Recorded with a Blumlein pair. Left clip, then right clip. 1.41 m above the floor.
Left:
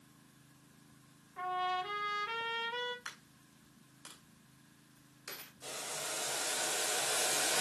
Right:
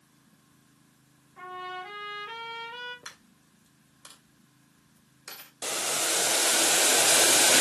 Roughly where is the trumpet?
Ahead.